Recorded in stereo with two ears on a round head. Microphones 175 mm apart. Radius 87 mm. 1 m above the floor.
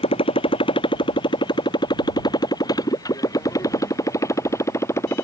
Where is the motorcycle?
30° left (ahead or behind); by 5.3 s 15° left (ahead or behind).